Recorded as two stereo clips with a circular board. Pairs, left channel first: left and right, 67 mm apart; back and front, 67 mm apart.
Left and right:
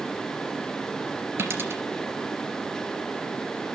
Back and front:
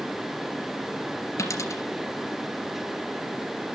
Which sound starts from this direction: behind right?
A dropped coin, at 1.4 s.